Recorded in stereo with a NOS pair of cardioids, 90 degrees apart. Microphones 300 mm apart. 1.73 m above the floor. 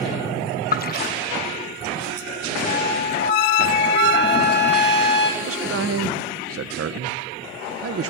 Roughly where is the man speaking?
Ahead right.